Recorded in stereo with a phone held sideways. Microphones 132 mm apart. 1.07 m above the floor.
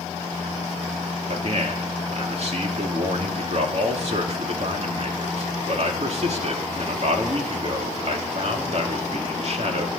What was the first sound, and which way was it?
A man speaking, 55° right (ahead or behind).